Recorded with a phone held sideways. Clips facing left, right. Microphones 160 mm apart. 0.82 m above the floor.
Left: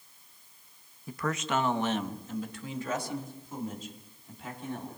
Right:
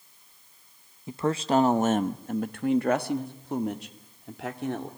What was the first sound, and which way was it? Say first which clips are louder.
A man speaking: right 7 dB; 20° right (ahead or behind).